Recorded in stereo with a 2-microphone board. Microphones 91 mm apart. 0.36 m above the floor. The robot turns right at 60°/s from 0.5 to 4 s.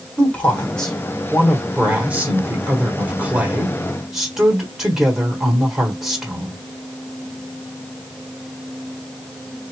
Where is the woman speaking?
15° left (ahead or behind), 1.3 m; by 6.6 s 5° right (ahead or behind), 1.3 m.